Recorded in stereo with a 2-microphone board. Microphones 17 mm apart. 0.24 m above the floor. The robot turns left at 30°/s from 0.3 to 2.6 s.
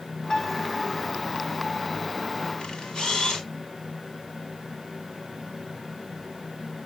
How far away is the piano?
About 1.9 m.